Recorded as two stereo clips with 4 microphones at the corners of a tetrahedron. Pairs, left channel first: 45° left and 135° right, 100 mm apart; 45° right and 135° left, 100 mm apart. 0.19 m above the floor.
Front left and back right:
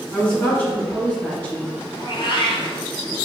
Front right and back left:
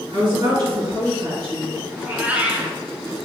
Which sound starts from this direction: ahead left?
A cat meowing, at 2.0 s.